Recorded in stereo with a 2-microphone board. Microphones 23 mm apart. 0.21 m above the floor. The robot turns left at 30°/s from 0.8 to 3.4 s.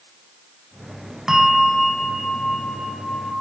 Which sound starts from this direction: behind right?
A bell, at 1.3 s.